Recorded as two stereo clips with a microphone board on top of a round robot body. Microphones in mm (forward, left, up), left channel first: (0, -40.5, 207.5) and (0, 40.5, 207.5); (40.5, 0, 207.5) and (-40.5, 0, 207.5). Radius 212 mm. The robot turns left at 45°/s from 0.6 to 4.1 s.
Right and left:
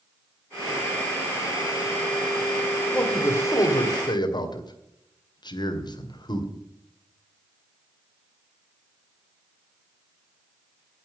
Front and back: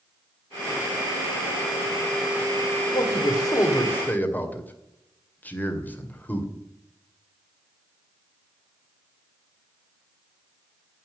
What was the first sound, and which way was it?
A man speaking, 15° right.